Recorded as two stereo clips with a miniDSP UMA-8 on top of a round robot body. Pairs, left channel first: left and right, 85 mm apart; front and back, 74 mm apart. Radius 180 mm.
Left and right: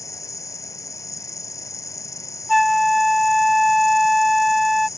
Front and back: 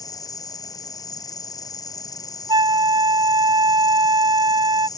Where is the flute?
Straight behind.